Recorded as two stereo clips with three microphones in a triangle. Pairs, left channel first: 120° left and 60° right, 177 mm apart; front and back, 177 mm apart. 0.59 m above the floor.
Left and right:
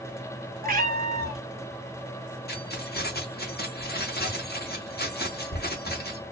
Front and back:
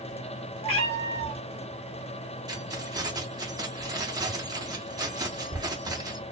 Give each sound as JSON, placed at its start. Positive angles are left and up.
{"t": 0.6, "sound": "a cat meowing", "azimuth_deg": -45, "distance_m": 0.8}
{"t": 2.5, "sound": "keys jangling", "azimuth_deg": 110, "distance_m": 0.9}